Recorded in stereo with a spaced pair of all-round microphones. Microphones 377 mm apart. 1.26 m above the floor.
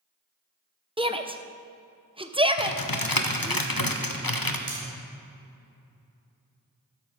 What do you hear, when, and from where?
1.0 s a shout: 15° right (ahead or behind), 0.8 m
2.6 s typing on a keyboard: 75° left (ahead or behind), 0.9 m
4.7 s cutlery clinking: 40° right (ahead or behind), 3.5 m